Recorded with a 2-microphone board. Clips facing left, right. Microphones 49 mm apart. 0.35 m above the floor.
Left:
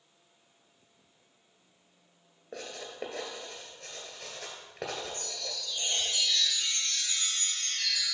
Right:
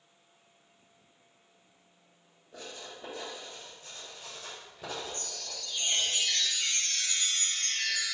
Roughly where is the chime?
Right.